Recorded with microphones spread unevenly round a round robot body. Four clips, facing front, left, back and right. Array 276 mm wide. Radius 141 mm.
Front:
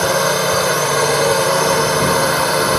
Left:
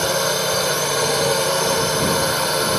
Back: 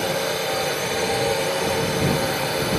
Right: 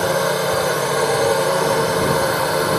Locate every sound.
0.0 s a drone: 25° right